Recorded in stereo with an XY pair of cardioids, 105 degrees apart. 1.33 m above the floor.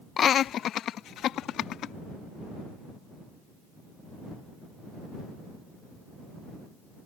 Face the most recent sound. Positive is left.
turn(degrees=80)